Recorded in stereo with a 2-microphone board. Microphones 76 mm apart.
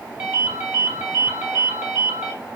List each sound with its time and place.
0.2 s a ringtone: 20° right (ahead or behind), 1.3 m